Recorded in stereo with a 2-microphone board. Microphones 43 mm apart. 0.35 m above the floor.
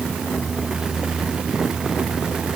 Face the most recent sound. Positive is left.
No sound to turn to.